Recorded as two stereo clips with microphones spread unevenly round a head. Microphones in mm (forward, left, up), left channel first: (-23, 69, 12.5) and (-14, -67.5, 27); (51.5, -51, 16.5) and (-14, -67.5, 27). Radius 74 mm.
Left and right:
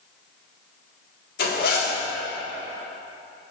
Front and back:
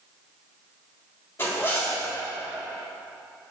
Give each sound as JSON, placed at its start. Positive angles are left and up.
{"t": 1.4, "sound": "a zipper", "azimuth_deg": 85, "distance_m": 1.6}